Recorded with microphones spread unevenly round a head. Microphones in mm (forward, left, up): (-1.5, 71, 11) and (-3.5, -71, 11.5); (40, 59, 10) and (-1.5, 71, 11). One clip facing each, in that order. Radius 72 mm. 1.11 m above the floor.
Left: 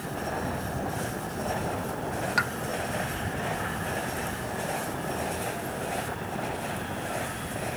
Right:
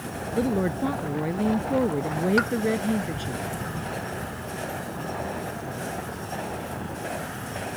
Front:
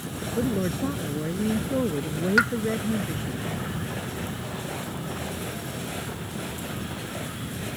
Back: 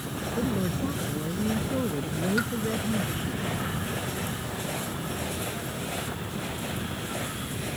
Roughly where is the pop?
Ahead.